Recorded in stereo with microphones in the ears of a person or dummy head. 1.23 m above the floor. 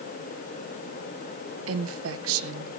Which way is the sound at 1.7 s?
75° right (ahead or behind).